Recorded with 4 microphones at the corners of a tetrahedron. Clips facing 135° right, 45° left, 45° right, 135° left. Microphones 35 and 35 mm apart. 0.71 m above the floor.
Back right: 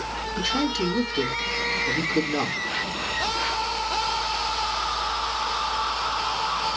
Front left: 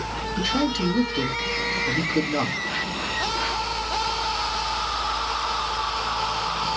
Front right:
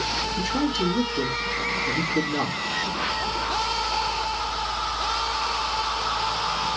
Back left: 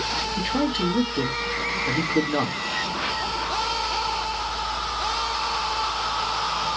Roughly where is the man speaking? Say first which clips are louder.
Front left 1 dB, back left 1 dB; behind left.